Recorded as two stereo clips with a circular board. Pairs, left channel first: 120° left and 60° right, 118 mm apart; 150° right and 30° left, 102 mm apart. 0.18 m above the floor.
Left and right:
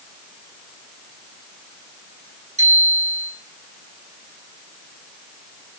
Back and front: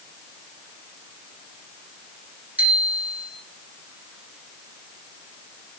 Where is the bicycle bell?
45° right, 4.5 m.